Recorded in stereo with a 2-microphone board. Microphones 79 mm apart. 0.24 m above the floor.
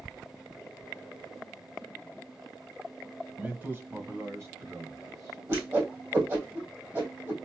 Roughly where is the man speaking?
Centre.